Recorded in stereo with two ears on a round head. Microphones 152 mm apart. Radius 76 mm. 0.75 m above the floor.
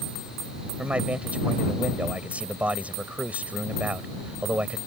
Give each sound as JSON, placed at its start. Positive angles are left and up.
{"t": 0.8, "sound": "a man speaking", "side_deg": -10}